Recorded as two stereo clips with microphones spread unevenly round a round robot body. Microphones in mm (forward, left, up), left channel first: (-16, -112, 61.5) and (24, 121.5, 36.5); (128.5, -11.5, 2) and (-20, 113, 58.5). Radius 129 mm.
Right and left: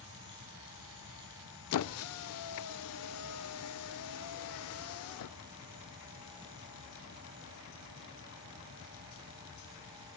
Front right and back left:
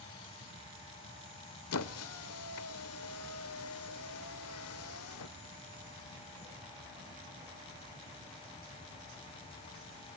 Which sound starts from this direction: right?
A squeak, at 1.7 s.